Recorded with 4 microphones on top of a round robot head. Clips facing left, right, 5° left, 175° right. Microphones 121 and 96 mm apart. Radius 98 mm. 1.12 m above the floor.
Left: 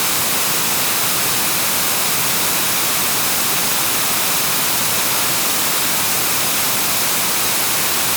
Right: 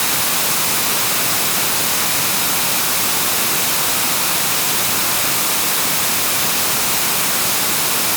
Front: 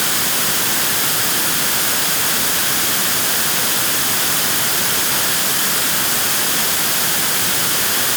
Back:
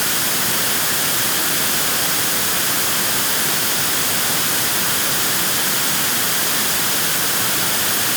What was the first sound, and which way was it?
Only background noise.